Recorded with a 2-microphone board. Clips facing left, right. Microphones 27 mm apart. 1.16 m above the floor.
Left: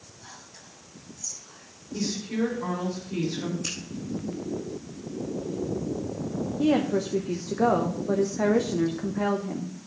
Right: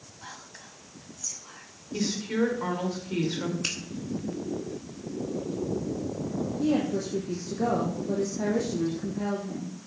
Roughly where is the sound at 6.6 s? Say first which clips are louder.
Left 4 dB; left.